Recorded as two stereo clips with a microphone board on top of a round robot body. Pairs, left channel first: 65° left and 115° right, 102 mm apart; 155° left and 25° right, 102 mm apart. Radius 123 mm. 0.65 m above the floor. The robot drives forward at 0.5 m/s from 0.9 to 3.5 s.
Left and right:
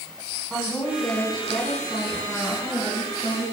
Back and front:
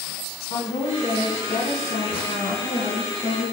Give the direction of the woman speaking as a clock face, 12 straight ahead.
7 o'clock.